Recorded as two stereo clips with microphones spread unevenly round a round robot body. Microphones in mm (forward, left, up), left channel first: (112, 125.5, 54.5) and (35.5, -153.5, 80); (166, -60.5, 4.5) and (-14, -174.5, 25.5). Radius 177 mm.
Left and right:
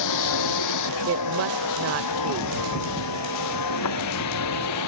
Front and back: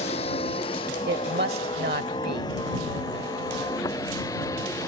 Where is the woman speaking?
125° right.